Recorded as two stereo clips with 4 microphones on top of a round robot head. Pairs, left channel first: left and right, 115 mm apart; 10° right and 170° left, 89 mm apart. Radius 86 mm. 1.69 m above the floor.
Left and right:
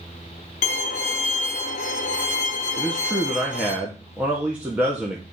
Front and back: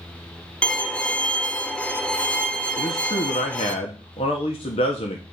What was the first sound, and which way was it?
A violin, 70° left.